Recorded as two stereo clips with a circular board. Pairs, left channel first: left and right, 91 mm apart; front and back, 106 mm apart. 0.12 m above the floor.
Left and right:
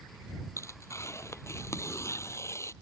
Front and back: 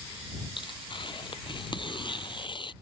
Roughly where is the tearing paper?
Ahead left.